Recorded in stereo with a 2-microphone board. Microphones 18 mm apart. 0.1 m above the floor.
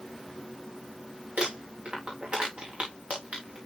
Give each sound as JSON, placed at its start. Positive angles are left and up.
{"t": 1.4, "sound": "crumpling", "side_deg": -80, "distance_m": 5.0}